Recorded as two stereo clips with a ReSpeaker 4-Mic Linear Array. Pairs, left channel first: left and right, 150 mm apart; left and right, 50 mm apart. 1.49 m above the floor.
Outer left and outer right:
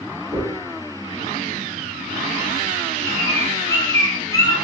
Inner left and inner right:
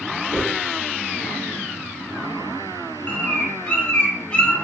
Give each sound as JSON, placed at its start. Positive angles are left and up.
{"t": 0.3, "sound": "a dropped coin", "side_deg": -10, "distance_m": 1.8}
{"t": 3.1, "sound": "a bird", "side_deg": 25, "distance_m": 0.6}